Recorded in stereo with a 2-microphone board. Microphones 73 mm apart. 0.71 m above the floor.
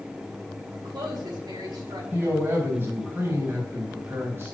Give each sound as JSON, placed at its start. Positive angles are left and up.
{"t": 0.7, "sound": "a woman speaking", "side_deg": -80, "distance_m": 4.0}
{"t": 2.1, "sound": "a man speaking", "side_deg": -35, "distance_m": 3.0}